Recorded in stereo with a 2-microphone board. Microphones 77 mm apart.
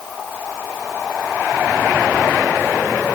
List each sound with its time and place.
Only background noise.